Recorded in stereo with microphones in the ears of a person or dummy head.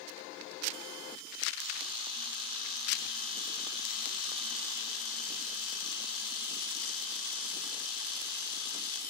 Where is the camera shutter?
55° left (ahead or behind), 5 m.